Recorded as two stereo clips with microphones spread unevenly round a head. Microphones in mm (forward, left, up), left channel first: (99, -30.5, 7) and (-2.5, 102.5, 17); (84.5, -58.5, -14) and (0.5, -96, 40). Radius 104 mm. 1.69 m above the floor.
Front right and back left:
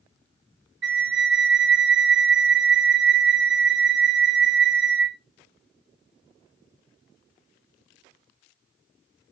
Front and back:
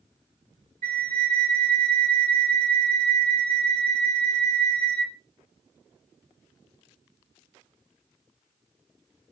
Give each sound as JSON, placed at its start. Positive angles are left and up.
{"t": 0.8, "sound": "a flute", "azimuth_deg": 165, "distance_m": 0.8}